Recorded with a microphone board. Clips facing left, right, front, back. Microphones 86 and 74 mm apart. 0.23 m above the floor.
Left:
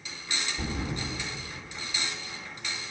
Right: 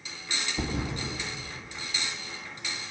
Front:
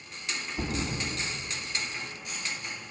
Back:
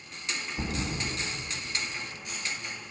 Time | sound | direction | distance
0.6 | a thud | 85° right | 1.5 m